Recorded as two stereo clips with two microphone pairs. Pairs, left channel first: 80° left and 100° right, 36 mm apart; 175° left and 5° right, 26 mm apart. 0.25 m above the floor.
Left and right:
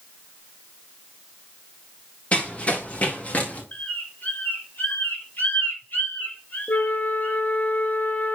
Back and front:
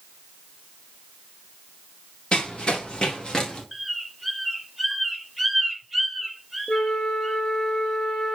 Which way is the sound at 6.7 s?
110° left.